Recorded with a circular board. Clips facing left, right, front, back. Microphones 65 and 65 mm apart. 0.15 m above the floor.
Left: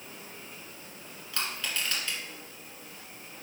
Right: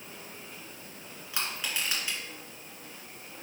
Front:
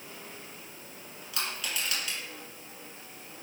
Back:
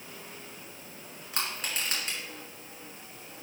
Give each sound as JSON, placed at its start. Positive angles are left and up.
{"t": 1.3, "sound": "crushing", "azimuth_deg": -155, "distance_m": 2.0}